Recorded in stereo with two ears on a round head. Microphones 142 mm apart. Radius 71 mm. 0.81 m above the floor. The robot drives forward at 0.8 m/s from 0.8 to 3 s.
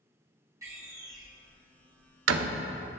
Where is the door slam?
20° right (ahead or behind), 1.3 m; by 2.6 s 60° right (ahead or behind), 0.5 m.